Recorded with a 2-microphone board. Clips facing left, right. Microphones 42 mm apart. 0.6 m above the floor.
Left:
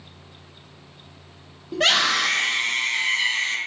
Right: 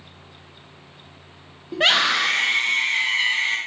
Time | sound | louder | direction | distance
1.7 | a scream | right 1 dB | 20° right (ahead or behind) | 0.7 m